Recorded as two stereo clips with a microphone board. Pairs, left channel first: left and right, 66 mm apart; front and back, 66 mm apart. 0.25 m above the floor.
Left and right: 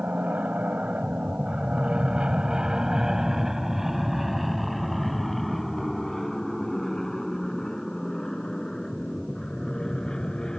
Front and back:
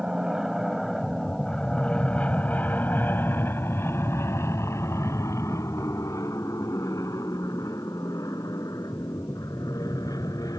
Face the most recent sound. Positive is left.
turn(degrees=10)